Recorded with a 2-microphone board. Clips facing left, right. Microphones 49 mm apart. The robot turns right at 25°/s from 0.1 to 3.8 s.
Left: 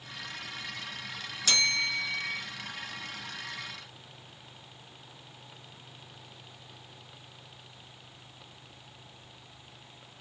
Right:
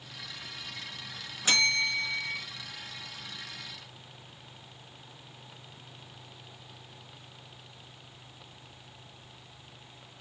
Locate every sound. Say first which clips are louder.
1.4 s a bell: right 2 dB; 25° right (ahead or behind), 1.3 m; by 2.4 s centre (ahead or behind), 1.3 m